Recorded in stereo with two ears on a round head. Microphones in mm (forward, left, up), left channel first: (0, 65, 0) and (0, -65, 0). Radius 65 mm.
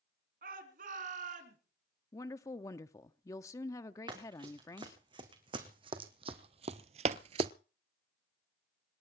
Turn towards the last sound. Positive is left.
turn(degrees=-35)  # may be behind; listen again after turning